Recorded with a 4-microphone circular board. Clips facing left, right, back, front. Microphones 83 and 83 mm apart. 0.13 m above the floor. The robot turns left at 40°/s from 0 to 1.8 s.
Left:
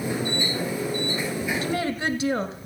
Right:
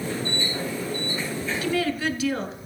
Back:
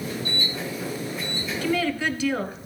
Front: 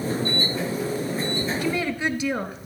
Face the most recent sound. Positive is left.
turn(degrees=60)